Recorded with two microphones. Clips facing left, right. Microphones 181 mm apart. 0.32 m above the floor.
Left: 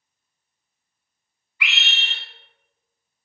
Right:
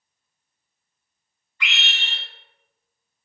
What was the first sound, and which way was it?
A scream, 10° left (ahead or behind).